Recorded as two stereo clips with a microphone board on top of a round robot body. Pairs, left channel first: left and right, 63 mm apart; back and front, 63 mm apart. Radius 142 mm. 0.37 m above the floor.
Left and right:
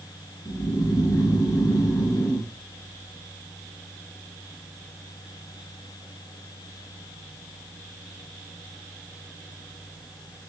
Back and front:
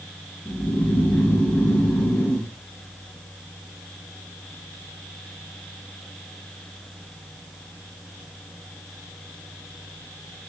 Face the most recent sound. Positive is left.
turn(degrees=120)